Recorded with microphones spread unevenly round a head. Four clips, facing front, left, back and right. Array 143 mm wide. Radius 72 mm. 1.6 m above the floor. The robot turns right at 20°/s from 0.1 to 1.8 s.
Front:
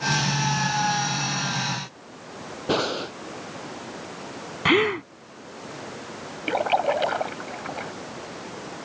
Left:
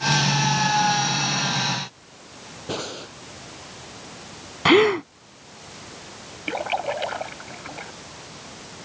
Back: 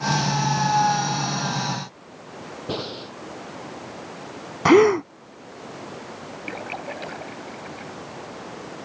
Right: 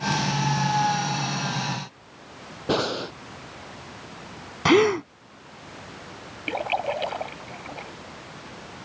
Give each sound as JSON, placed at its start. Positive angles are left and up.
{"t": 2.7, "sound": "breathing", "azimuth_deg": -30}
{"t": 4.7, "sound": "a gasp", "azimuth_deg": 165}
{"t": 6.5, "sound": "a splash", "azimuth_deg": 0}